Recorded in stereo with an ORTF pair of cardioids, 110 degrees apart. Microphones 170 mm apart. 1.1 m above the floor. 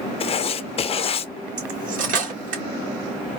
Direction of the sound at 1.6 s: 50° right.